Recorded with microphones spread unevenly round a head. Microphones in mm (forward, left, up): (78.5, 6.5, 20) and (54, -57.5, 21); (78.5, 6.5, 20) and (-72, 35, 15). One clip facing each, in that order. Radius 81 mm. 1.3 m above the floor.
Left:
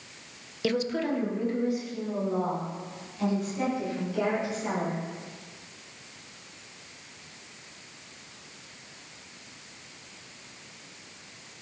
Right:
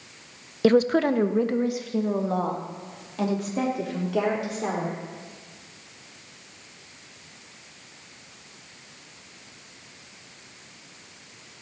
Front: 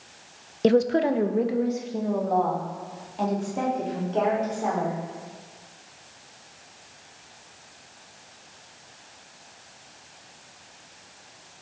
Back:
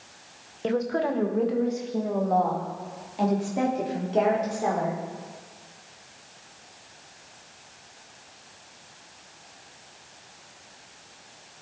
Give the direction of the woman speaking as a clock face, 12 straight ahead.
2 o'clock.